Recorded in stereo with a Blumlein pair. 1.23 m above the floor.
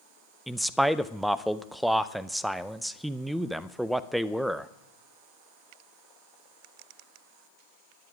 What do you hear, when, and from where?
0.5 s a man speaking: 5° right, 0.6 m